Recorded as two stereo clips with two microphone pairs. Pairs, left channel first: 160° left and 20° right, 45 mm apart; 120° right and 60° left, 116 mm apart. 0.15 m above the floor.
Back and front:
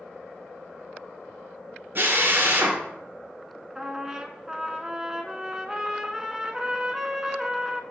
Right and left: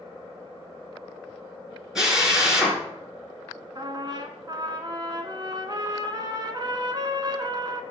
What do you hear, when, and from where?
1.9 s a drill: 25° right, 1.7 m
3.8 s a trumpet: 50° left, 0.7 m